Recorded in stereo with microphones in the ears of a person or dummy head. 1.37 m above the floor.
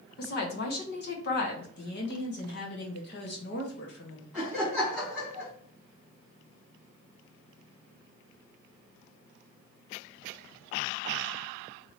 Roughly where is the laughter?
Centre.